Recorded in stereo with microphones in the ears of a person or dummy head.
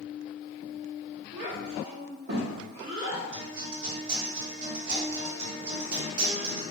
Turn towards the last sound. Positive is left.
turn(degrees=-70)  # may be behind; listen again after turning